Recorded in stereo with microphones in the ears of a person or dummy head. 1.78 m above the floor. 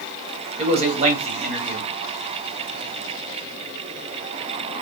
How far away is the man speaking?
About 1.1 m.